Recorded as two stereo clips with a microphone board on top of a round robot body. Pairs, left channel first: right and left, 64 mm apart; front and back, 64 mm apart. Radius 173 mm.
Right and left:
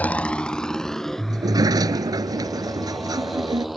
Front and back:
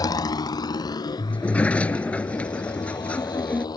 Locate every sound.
0.0 s a motorcycle: 25° right; by 3.8 s straight ahead
1.3 s a sliding door: 70° left